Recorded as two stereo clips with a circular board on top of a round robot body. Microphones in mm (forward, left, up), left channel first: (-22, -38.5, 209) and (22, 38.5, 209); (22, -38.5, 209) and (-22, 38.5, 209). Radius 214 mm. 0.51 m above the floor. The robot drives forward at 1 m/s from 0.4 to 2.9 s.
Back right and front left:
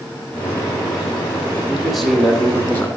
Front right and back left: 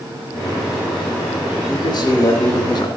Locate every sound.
1.7 s a man speaking: 25° right, 2 m; by 2.9 s 60° right, 1.3 m